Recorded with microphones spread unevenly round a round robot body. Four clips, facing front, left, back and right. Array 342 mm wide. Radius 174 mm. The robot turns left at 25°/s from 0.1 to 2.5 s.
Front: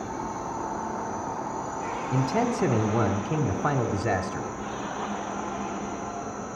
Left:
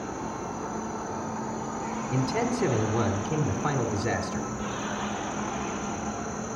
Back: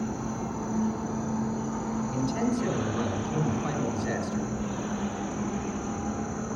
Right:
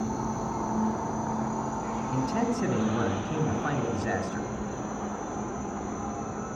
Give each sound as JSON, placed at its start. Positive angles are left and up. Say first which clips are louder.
{"t": 0.0, "sound": "an insect", "louder": "right 3 dB, even", "azimuth_deg": -125, "distance_m": 3.5}
{"t": 2.1, "sound": "a man speaking", "louder": "left 1 dB, front 4 dB", "azimuth_deg": 25, "distance_m": 2.0}